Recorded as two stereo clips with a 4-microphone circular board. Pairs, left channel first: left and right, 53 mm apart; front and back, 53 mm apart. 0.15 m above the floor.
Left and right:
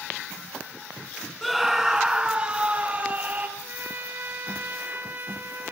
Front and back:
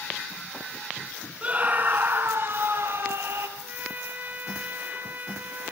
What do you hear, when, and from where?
1.4 s a scream: straight behind, 1.4 m; by 3.5 s 150° right, 3 m
3.6 s a trumpet: 130° right, 2 m